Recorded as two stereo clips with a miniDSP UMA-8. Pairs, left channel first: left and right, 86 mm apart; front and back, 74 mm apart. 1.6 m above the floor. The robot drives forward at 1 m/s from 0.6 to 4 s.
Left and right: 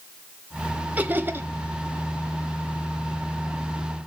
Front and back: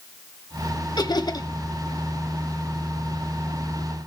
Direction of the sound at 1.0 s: 20° right.